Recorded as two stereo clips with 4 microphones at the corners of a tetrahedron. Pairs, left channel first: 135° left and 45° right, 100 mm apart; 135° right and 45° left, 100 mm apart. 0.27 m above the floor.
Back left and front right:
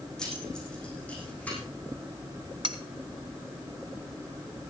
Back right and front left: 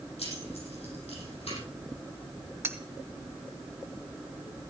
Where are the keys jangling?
140° right, 8.5 m; by 1.6 s 150° right, 9 m.